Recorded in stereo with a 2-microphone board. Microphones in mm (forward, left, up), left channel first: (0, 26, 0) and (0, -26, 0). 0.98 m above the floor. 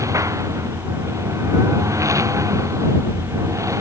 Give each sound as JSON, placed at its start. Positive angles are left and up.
{"t": 0.0, "sound": "a lawn mower", "side_deg": -85}